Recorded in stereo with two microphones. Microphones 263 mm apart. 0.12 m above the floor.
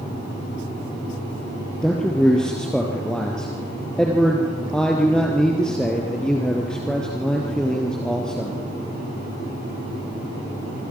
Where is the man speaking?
5° left (ahead or behind), 2.5 m.